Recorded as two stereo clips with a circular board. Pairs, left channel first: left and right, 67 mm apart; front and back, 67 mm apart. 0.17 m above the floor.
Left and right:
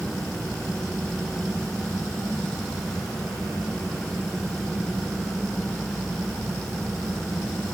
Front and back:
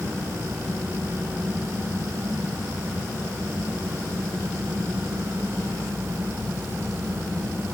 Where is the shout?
No shout in this recording.